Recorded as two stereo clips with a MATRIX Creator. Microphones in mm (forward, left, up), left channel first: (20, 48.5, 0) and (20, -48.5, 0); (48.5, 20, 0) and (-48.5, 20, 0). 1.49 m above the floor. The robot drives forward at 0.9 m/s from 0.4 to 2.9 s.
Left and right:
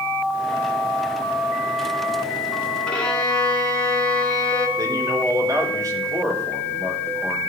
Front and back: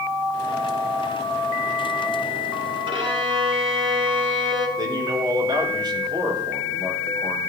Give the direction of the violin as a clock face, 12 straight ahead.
6 o'clock.